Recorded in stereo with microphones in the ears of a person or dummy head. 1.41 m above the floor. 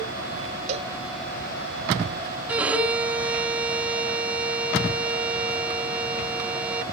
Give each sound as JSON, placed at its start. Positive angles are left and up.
{"t": 0.7, "sound": "a cowbell", "side_deg": -45}
{"t": 2.5, "sound": "a violin", "side_deg": -10}